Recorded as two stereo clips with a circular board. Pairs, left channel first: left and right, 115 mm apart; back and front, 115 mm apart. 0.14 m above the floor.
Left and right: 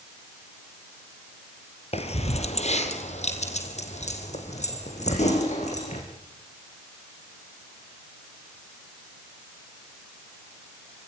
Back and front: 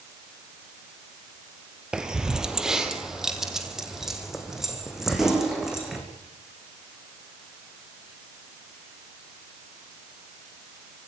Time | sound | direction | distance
1.9 | keys jangling | 80° left | 2 m